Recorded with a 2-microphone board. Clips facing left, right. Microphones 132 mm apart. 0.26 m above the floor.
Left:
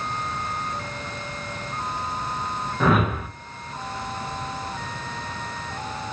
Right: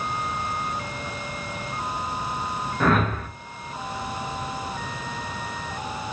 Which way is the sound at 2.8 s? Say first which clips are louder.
Left 1 dB; 5° left (ahead or behind).